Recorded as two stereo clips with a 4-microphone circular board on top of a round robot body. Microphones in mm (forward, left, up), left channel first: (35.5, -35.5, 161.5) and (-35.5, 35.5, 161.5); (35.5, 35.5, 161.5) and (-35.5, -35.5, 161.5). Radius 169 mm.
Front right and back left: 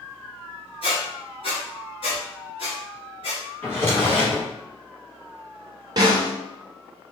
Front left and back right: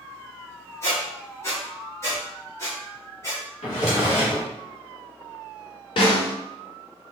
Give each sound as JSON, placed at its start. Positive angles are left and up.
{"t": 0.8, "sound": "a squeak", "azimuth_deg": -20, "distance_m": 0.7}
{"t": 3.6, "sound": "a drawer", "azimuth_deg": 20, "distance_m": 1.1}
{"t": 6.0, "sound": "a snare drum", "azimuth_deg": 85, "distance_m": 0.5}